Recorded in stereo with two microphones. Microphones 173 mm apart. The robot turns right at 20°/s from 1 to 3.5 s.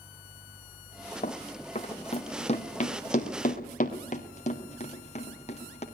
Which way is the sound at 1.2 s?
45° left (ahead or behind).